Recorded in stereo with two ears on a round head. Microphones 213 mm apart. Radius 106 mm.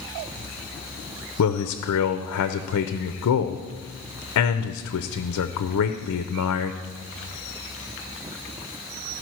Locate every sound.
1.4 s a man speaking: 65° left (ahead or behind), 0.6 m